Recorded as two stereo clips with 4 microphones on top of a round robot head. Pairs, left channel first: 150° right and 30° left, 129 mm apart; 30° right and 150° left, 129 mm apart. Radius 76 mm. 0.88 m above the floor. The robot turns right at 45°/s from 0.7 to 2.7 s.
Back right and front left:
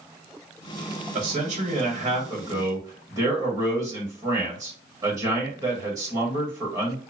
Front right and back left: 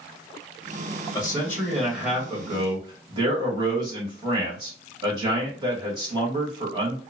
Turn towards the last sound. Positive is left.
turn(degrees=95)